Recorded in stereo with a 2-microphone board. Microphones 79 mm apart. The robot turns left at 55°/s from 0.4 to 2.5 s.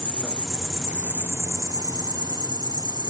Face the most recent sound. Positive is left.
turn(degrees=-100)